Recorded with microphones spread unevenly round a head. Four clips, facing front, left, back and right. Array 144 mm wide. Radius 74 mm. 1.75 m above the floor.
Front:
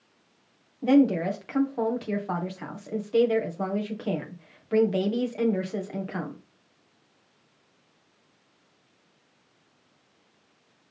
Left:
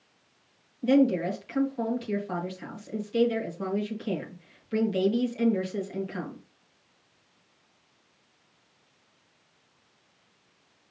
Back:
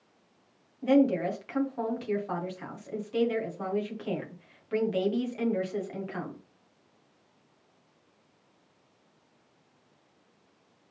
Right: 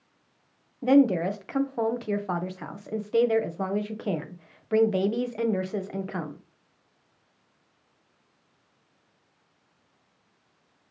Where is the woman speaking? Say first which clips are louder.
Right 2 dB, front 3 dB; 60° right, 1.6 m.